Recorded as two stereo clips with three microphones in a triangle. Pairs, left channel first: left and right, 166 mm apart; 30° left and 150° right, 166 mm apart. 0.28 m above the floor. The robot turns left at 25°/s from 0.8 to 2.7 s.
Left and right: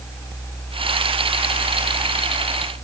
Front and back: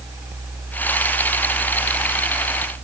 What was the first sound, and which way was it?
Only background noise.